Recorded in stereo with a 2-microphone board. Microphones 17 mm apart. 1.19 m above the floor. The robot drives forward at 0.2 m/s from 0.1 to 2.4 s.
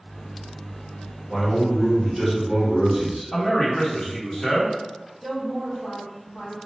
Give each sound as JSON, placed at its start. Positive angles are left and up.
{"t": 1.3, "sound": "a man speaking", "side_deg": 30, "distance_m": 1.7}
{"t": 3.3, "sound": "a man speaking", "side_deg": 50, "distance_m": 1.5}
{"t": 5.2, "sound": "a woman speaking", "side_deg": 5, "distance_m": 1.9}